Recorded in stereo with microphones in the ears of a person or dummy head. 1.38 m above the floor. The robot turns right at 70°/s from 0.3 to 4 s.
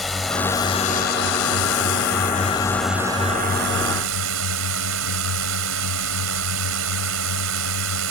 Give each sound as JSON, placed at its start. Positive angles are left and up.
{"t": 0.0, "sound": "a drone", "azimuth_deg": 0}